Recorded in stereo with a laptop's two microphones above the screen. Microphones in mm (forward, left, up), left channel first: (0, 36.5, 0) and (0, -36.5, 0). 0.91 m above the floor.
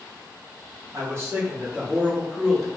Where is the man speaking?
40° right (ahead or behind), 1.8 m; by 2.7 s 5° right (ahead or behind), 1.5 m.